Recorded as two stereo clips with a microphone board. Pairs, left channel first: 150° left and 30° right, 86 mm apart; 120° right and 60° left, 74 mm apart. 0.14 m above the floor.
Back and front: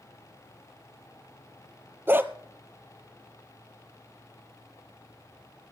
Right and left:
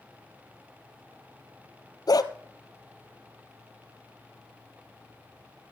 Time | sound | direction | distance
2.1 | a dog barking | 95° right | 0.9 m